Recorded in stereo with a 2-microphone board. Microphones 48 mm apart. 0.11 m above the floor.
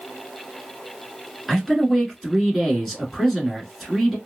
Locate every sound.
1.5 s a man speaking: centre (ahead or behind), 1.1 m